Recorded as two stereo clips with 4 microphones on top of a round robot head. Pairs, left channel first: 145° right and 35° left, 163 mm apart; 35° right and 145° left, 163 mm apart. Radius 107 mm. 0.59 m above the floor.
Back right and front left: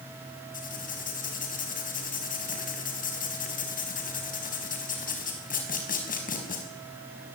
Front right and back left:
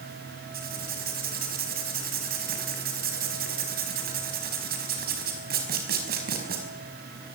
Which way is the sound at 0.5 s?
175° left.